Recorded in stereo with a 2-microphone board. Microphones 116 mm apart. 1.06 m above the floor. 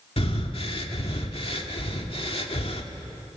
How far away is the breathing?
About 2 m.